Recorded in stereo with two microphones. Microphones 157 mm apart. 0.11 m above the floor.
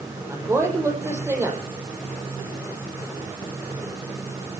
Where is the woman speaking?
20° right (ahead or behind), 5 m.